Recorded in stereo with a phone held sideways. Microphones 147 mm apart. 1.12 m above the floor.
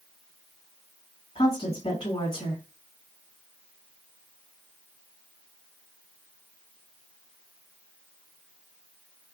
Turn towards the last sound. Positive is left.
turn(degrees=50)  # may be behind; listen again after turning